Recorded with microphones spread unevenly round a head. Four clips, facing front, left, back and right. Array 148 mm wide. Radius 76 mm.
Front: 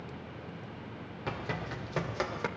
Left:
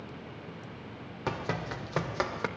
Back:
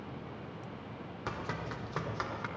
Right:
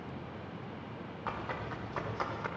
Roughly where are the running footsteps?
Left.